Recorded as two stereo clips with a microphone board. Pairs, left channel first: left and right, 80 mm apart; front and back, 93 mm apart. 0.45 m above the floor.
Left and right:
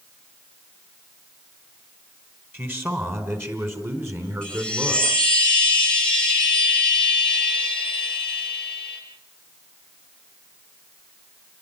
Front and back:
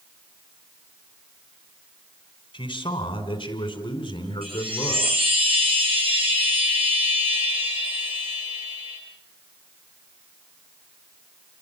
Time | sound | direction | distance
2.5 | a man speaking | 25° right | 4 m
4.4 | a chime | 165° left | 7.5 m